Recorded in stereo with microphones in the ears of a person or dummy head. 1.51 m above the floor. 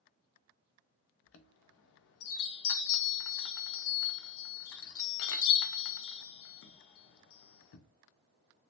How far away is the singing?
I don't hear singing.